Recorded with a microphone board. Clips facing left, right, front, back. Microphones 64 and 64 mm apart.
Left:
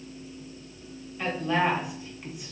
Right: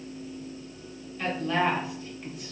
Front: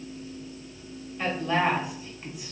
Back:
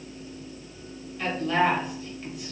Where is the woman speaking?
35° left, 0.9 m.